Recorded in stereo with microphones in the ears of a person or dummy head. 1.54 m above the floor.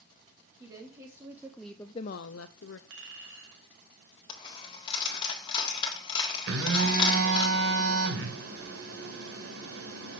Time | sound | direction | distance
0.6 | a woman speaking | 20° right (ahead or behind) | 1.9 m
2.9 | a clink | 70° right (ahead or behind) | 3.5 m
4.3 | a dropped coin | 25° left (ahead or behind) | 1.7 m
6.5 | a phone buzzing | 65° right (ahead or behind) | 2.5 m